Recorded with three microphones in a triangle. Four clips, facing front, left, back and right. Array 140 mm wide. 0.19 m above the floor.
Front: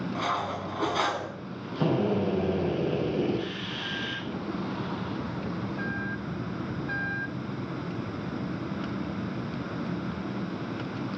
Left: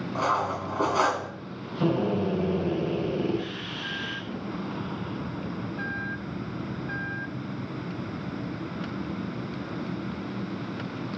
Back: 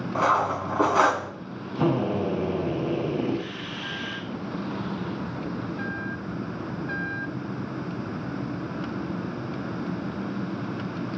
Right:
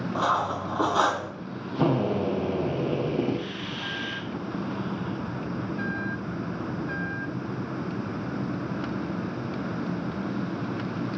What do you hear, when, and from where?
0.1 s cutlery clinking: 170° right, 1.0 m
1.8 s a drill: 100° right, 7 m